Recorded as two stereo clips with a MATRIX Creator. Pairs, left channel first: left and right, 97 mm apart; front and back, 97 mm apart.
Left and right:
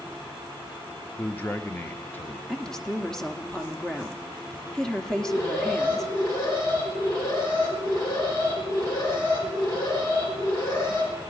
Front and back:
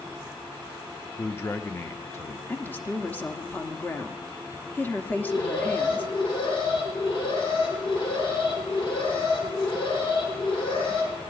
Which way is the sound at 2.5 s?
20° left.